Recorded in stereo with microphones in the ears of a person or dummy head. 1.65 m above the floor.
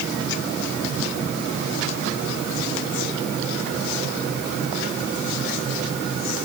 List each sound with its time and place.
Only background noise.